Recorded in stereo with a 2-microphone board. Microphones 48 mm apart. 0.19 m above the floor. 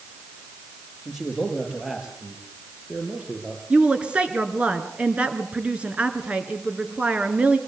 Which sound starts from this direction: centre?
A man speaking, at 1.1 s.